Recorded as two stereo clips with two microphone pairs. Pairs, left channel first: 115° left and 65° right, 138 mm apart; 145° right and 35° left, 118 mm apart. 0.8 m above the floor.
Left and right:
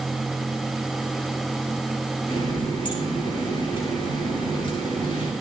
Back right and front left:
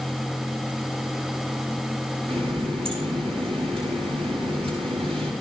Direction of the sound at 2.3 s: 65° left.